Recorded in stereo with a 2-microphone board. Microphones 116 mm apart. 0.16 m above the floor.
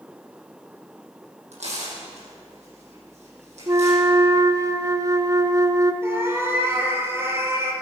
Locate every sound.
1.5 s tearing paper: 80° right, 5 m
3.7 s a flute: 30° right (ahead or behind), 0.7 m
6.0 s a cat meowing: 20° right (ahead or behind), 2 m